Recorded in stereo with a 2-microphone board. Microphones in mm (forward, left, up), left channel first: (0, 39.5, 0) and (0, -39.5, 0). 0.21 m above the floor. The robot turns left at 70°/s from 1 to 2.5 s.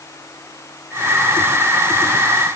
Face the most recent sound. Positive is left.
No sound to turn to.